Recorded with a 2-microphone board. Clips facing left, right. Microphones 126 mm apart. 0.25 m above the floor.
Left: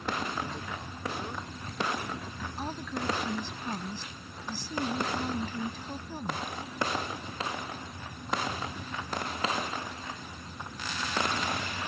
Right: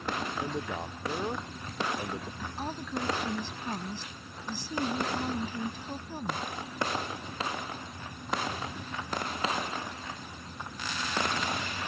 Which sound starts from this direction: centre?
A woman speaking, at 2.4 s.